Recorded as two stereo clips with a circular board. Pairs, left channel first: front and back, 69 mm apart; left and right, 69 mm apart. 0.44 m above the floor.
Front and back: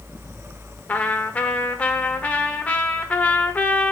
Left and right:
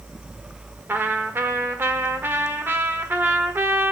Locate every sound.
0.9 s a trumpet: 55° right, 1.2 m